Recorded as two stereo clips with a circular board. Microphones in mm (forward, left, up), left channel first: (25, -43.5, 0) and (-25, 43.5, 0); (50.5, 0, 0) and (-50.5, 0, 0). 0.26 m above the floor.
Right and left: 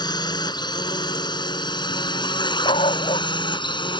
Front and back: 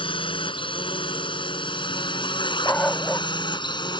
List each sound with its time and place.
0.0 s a drone: 20° right; by 4.0 s 30° right
2.6 s a dog barking: 75° right